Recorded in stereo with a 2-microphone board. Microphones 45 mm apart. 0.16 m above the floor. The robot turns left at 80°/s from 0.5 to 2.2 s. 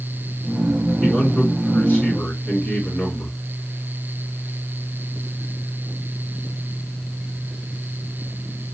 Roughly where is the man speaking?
Behind.